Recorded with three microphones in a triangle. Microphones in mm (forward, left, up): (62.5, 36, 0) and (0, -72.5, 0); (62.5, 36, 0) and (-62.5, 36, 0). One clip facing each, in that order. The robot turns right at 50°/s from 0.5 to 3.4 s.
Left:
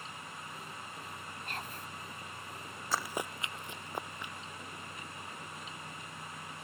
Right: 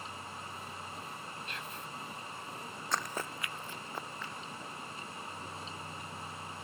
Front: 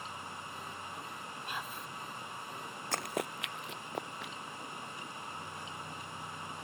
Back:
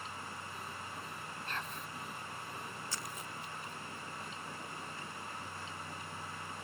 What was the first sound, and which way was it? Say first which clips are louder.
Whispering: left 1 dB, front 1 dB; 75° left.